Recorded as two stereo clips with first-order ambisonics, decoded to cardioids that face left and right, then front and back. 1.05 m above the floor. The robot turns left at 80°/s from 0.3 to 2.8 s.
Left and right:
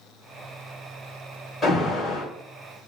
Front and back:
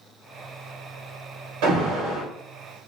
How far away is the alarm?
About 2 m.